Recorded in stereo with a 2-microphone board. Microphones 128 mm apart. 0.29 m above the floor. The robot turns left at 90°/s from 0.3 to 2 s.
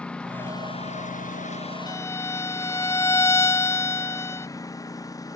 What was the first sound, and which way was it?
A lawn mower, 10° left (ahead or behind).